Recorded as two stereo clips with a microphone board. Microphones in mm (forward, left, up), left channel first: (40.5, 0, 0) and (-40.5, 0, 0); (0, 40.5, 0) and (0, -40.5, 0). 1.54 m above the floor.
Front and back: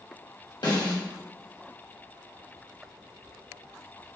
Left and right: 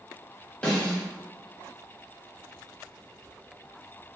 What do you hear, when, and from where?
0.6 s a snare drum: 15° left, 0.8 m